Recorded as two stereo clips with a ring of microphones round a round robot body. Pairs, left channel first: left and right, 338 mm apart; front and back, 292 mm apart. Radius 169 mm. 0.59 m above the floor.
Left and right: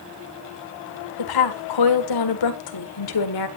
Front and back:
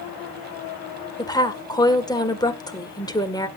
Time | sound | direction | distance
1.2 | a woman speaking | 75° left | 1.8 m